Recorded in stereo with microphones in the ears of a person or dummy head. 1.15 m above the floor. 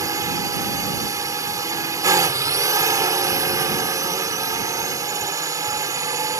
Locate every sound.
0.0 s a drone: 15° right (ahead or behind)